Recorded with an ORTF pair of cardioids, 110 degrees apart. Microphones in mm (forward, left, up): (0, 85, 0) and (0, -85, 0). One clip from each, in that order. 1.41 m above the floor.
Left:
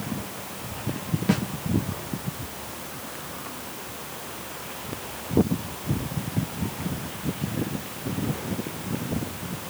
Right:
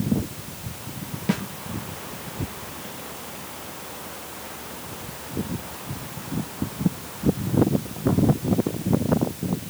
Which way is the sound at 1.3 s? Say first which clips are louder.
Left 1 dB; straight ahead.